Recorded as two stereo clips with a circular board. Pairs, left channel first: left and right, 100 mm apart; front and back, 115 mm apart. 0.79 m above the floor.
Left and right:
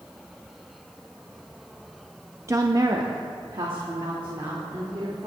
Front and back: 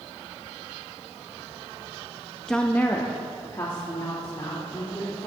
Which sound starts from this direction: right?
A woman speaking, at 2.5 s.